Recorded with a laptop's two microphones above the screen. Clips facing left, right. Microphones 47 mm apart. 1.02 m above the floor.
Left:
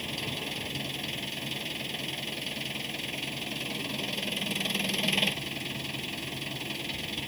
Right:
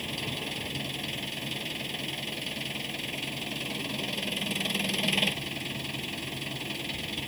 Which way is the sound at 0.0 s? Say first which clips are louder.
Even; centre (ahead or behind).